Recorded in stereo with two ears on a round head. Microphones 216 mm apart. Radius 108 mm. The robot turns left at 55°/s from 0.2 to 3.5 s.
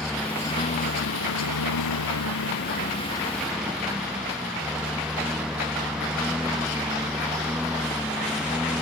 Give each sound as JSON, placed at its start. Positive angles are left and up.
{"t": 0.0, "sound": "a lawn mower", "azimuth_deg": 180}